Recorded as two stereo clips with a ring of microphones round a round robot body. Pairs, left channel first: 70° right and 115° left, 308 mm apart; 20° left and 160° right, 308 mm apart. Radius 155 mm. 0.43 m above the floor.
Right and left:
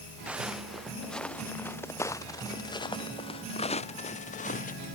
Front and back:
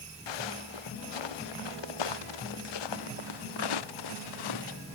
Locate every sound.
0.3 s footsteps: 25° left; by 4.8 s straight ahead